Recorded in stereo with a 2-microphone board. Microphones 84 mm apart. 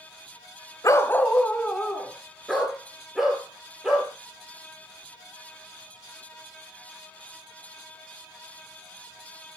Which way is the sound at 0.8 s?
40° left (ahead or behind).